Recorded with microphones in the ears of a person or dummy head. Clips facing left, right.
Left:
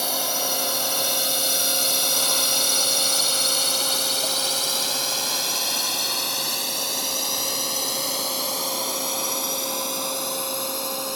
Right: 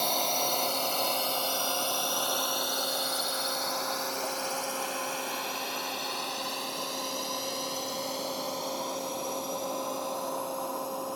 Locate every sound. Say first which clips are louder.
0.0 s a drone: left 2 dB; 5° left (ahead or behind); by 11.2 s 85° left